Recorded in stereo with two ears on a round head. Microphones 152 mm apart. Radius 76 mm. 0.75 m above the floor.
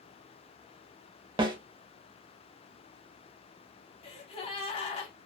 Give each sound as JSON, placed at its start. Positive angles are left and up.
{"t": 1.4, "sound": "a snare drum", "side_deg": -25, "distance_m": 0.7}
{"t": 4.0, "sound": "a gasp", "side_deg": 35, "distance_m": 0.7}